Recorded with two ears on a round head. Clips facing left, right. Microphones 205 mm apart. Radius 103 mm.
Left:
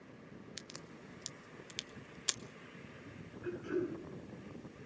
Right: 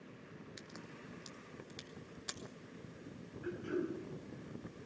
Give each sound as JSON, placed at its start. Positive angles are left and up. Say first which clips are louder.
{"t": 0.6, "sound": "a crack", "louder": "even", "side_deg": 45, "distance_m": 1.0}
{"t": 3.4, "sound": "throat clearing", "louder": "left 2 dB", "side_deg": 0, "distance_m": 8.0}